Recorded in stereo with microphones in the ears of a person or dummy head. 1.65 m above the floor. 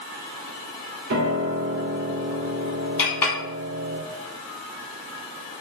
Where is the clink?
5° left (ahead or behind), 1.4 m.